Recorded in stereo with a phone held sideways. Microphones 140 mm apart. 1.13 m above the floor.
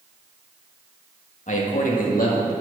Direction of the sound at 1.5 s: 65° left (ahead or behind).